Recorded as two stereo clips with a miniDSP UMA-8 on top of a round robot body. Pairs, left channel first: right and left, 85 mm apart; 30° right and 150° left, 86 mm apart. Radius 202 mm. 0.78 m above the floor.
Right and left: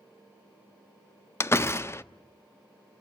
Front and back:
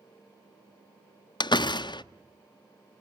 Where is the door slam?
35° right, 0.8 m.